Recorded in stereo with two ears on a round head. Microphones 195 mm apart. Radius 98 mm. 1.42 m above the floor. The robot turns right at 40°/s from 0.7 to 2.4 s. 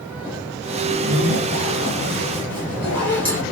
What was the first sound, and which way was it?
A zipper, 55° right.